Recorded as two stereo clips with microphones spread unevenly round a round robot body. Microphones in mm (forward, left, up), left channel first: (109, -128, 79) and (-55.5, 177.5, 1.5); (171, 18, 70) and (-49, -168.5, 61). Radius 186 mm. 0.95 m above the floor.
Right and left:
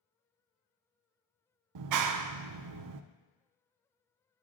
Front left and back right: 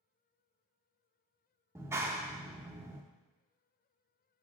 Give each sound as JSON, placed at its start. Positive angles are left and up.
{"t": 1.8, "sound": "a clap", "azimuth_deg": 140, "distance_m": 0.6}